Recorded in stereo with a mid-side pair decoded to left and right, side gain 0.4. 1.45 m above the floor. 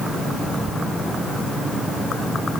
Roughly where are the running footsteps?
I don't hear running footsteps.